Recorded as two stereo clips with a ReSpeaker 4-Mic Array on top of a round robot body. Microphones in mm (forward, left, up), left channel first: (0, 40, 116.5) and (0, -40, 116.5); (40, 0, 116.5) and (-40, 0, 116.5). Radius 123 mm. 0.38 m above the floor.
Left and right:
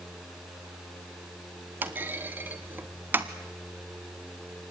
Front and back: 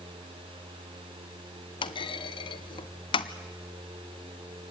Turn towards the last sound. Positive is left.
turn(degrees=-20)